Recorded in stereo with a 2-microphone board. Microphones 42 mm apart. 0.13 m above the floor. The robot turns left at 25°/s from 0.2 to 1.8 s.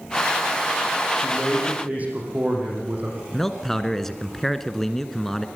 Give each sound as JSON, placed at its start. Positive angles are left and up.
{"t": 1.2, "sound": "a man speaking", "side_deg": -20, "distance_m": 5.5}
{"t": 3.3, "sound": "a man speaking", "side_deg": 5, "distance_m": 1.3}